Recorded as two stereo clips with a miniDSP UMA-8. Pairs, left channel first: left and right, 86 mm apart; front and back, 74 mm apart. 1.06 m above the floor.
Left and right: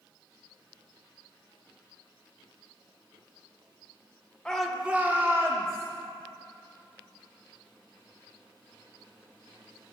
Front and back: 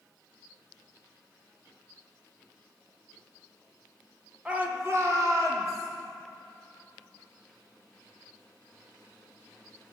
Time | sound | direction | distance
4.5 | a shout | 150° left | 0.7 m